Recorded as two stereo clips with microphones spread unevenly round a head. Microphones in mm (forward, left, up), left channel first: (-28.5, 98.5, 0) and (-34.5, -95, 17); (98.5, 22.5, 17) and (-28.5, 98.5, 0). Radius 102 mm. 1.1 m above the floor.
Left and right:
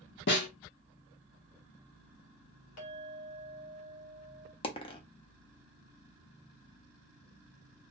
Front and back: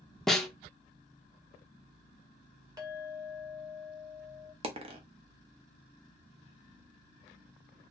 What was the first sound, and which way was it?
A snare drum, 50° left.